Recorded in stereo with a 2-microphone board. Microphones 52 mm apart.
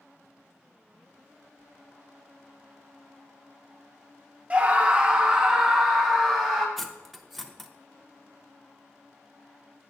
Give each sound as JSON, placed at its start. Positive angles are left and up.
{"t": 4.5, "sound": "a scream", "side_deg": -25, "distance_m": 0.8}
{"t": 6.8, "sound": "cutlery clinking", "side_deg": 5, "distance_m": 0.6}